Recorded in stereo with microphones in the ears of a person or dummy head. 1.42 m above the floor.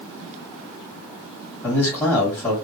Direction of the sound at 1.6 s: 15° left (ahead or behind).